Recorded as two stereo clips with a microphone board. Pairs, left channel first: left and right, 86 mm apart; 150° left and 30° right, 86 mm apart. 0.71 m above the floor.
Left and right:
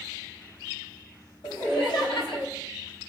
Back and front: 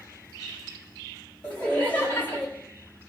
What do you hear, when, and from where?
1.4 s laughter: 80° left, 3.5 m; by 2.5 s 90° left, 3 m